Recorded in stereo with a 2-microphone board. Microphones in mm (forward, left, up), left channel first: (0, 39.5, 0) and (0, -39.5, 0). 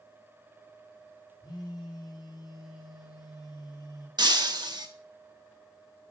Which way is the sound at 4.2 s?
65° right (ahead or behind).